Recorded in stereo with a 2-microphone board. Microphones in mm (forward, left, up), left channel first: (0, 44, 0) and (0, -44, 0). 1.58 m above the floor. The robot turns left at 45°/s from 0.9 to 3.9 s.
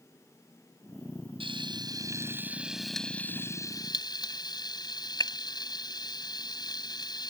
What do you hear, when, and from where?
1.4 s frying: 65° right (ahead or behind); by 7.3 s 45° left (ahead or behind)